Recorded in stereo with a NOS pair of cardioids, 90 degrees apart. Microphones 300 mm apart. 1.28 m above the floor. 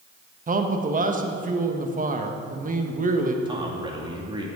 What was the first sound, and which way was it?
A man speaking, 25° right.